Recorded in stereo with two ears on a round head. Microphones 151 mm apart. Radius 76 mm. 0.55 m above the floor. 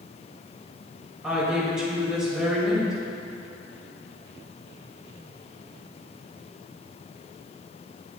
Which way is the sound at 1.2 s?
5° right (ahead or behind).